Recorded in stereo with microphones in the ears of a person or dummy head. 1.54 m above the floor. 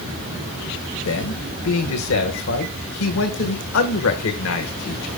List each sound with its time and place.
1.1 s a man speaking: 70° left (ahead or behind), 1.3 m